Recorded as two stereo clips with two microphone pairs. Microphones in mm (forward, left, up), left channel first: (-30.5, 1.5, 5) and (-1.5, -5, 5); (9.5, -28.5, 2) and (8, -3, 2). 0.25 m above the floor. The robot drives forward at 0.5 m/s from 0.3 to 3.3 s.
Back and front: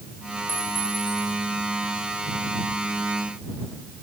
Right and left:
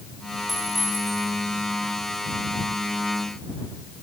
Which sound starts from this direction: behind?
A clink, at 0.5 s.